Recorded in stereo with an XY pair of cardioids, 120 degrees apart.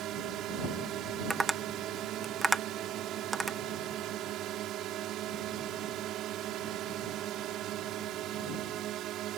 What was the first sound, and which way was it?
A drone, 70° right.